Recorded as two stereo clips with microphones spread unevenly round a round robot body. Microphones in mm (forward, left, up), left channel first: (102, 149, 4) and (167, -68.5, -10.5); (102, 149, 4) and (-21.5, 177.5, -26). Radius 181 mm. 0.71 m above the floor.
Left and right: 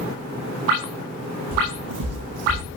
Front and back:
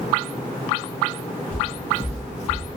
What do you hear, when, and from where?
1.5 s footsteps: 75° right, 3.5 m; by 2.8 s 95° right, 1.6 m